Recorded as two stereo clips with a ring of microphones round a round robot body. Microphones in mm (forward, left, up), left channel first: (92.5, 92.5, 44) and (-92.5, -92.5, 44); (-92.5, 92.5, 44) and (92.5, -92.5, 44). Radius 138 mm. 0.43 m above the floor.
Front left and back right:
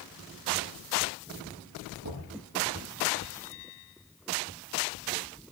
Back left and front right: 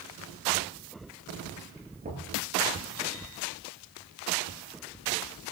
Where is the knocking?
110° right, 7.5 m.